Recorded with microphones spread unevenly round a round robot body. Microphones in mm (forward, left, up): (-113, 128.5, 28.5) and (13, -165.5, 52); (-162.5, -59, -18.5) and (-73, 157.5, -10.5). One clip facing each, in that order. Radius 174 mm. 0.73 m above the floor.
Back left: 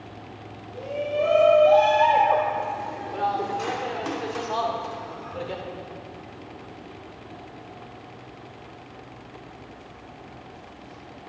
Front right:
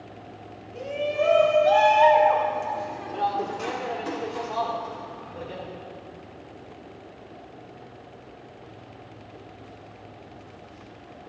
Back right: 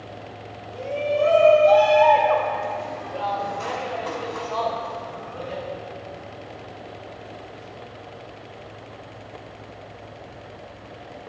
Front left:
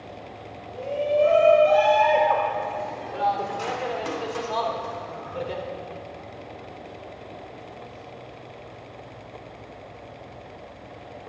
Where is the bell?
No bell in this recording.